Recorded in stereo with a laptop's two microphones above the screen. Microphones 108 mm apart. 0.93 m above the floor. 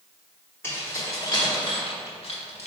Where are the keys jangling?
20° left (ahead or behind), 1.2 m; by 2.7 s 80° left, 1.0 m.